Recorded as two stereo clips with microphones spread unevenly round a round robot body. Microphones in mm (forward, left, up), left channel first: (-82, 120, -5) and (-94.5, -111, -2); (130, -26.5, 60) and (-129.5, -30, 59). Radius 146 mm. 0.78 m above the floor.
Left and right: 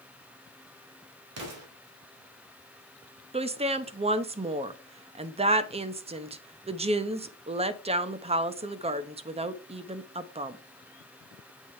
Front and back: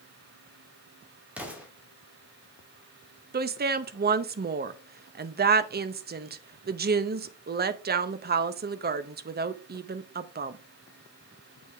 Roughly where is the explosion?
Right.